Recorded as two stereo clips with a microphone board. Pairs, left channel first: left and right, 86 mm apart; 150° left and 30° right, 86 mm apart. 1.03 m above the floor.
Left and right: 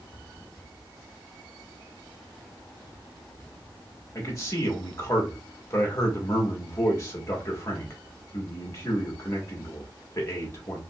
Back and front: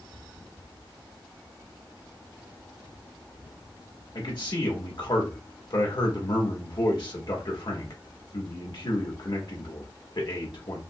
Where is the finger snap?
I don't hear a finger snap.